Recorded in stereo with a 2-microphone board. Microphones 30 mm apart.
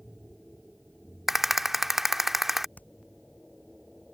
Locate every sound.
1.3 s a rattle: 10° right (ahead or behind)
2.8 s hammering: 70° left (ahead or behind)